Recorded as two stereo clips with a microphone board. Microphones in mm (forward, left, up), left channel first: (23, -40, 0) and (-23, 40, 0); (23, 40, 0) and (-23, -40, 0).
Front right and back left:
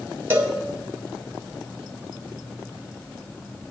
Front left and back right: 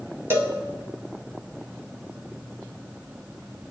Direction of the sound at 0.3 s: Straight behind.